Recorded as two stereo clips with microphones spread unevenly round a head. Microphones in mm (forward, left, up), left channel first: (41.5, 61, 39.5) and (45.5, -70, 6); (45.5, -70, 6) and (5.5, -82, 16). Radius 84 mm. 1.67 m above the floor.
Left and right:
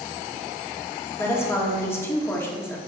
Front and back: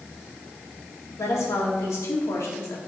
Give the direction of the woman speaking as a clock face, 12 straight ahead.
11 o'clock.